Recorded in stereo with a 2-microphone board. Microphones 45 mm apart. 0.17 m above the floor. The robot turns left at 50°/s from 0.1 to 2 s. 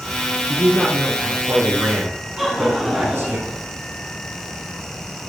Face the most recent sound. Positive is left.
turn(degrees=-5)  # may be behind; listen again after turning